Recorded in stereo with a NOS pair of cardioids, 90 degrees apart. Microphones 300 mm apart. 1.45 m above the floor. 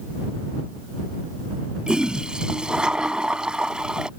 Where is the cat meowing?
I don't hear a cat meowing.